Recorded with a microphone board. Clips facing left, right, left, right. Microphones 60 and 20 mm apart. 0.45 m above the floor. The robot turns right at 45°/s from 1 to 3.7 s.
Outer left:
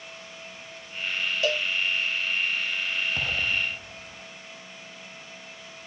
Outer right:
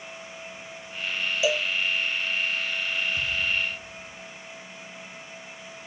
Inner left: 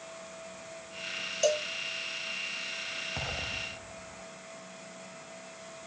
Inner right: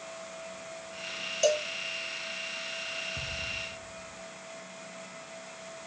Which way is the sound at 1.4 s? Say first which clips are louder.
Outer right 2 dB, inner right 2 dB; 5° right (ahead or behind).